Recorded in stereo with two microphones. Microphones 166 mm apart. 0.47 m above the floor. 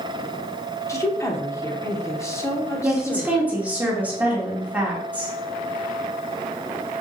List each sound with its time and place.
0.9 s a woman speaking: 20° left (ahead or behind), 0.7 m
2.8 s a woman speaking: 10° right (ahead or behind), 1.2 m